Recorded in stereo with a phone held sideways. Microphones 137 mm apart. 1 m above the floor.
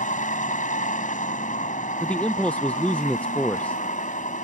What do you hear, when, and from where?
0.0 s a vehicle: 85° left
2.0 s a man speaking: 10° left (ahead or behind)